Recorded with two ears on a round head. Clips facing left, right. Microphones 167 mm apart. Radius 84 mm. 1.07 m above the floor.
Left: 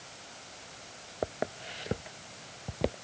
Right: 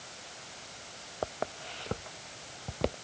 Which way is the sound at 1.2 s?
25° left (ahead or behind).